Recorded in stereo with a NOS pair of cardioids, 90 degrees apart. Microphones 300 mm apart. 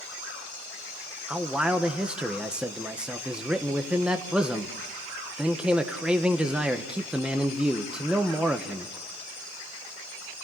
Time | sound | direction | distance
1.3 | a man speaking | 5° right | 1.3 m